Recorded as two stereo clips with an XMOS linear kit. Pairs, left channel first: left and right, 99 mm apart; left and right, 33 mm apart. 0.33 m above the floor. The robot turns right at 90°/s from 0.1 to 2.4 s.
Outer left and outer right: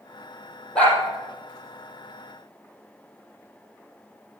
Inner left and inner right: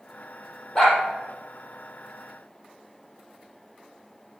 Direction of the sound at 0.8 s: 10° left (ahead or behind).